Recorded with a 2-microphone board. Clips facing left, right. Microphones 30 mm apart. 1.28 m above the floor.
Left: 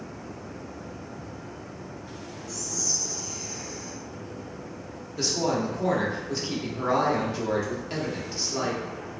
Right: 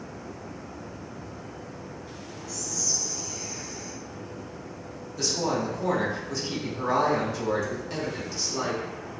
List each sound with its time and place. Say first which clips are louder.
2.5 s whispering: even; 80° right, 1.7 m
5.2 s a woman speaking: left 1 dB; 20° left (ahead or behind), 1.0 m